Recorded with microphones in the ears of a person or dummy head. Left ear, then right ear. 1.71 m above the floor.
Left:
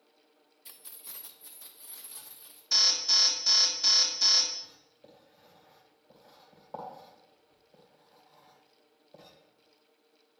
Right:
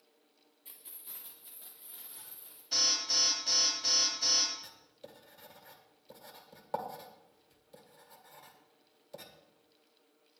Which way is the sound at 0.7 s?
50° left (ahead or behind).